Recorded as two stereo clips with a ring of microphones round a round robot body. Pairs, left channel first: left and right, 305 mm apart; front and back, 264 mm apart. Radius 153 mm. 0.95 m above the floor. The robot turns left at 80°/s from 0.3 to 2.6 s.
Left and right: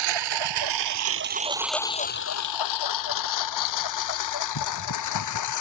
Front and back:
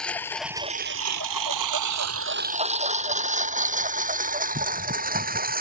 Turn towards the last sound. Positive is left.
turn(degrees=125)